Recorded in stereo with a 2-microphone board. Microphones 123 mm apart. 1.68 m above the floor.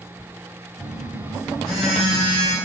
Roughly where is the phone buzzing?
Centre.